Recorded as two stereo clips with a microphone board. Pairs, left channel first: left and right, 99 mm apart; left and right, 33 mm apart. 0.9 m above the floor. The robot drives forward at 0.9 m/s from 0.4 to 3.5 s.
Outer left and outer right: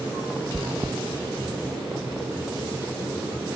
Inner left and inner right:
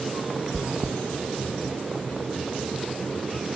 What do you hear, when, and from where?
0.5 s chewing: 20° right (ahead or behind), 0.5 m; by 1.0 s 10° right (ahead or behind), 0.9 m